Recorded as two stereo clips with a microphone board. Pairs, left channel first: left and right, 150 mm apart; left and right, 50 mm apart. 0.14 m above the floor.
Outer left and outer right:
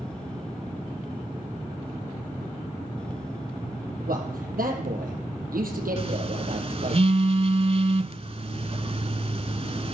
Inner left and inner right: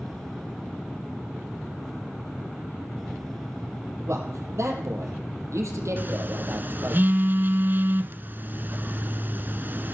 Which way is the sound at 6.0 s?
40° right (ahead or behind).